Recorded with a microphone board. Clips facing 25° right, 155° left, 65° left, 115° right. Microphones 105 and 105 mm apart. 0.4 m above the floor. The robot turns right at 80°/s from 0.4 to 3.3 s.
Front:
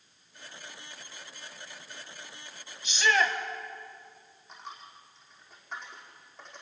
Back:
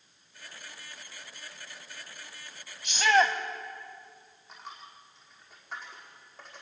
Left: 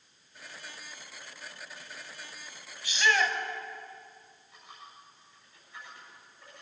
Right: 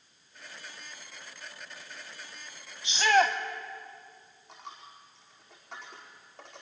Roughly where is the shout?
Behind.